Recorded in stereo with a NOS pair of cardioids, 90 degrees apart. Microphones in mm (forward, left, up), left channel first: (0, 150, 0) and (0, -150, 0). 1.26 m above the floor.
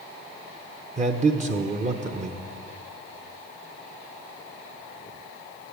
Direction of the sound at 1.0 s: 25° right.